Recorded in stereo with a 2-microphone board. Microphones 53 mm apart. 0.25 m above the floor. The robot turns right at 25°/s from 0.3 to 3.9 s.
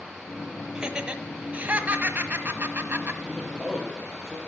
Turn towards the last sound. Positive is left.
turn(degrees=-15)  # may be behind; listen again after turning